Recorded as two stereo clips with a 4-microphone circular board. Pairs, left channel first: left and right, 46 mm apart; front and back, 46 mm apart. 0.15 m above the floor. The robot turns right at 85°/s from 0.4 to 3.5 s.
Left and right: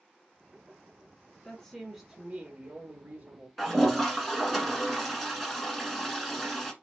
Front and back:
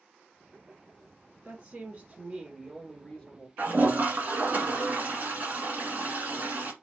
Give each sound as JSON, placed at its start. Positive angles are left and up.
{"t": 1.4, "sound": "a woman speaking", "azimuth_deg": 135, "distance_m": 1.4}
{"t": 3.6, "sound": "a toilet flushing", "azimuth_deg": 180, "distance_m": 1.4}